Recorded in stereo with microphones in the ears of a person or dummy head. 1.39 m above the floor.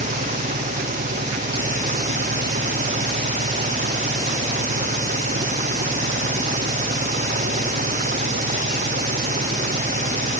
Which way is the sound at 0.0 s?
45° right (ahead or behind).